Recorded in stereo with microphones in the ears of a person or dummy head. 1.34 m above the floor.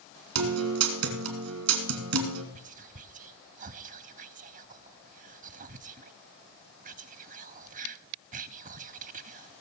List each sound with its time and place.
0.3 s a guitar: 80° right, 2.5 m
2.5 s whispering: 40° right (ahead or behind), 0.6 m